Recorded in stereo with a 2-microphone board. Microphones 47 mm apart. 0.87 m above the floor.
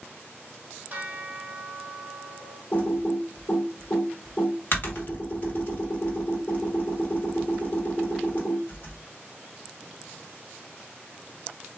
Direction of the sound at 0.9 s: 45° right (ahead or behind).